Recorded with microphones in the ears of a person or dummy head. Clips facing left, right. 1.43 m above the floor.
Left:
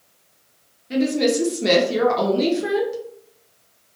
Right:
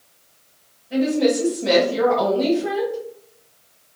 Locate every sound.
0.9 s a woman speaking: 75° left (ahead or behind), 0.9 m